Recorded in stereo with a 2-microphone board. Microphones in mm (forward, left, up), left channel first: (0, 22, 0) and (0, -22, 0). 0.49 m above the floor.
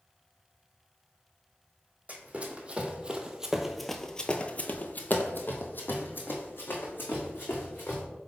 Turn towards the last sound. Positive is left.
turn(degrees=55)  # may be behind; listen again after turning